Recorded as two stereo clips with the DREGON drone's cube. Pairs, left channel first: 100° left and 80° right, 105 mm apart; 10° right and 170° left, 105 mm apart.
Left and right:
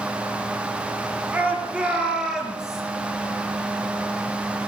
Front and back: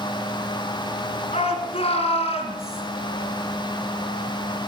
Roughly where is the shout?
Ahead.